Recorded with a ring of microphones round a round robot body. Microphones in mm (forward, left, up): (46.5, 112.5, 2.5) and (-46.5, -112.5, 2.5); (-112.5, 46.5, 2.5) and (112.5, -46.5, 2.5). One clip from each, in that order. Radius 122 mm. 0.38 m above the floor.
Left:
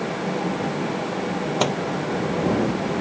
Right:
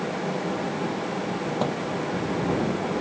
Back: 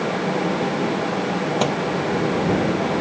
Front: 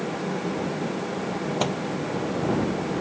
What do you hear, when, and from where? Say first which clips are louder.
1.6 s a microwave: left 6 dB, back 4 dB; 65° left